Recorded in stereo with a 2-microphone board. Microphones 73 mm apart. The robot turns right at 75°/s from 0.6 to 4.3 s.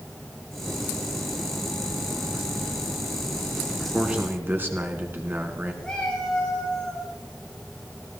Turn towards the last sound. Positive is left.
turn(degrees=10)  # may be behind; listen again after turning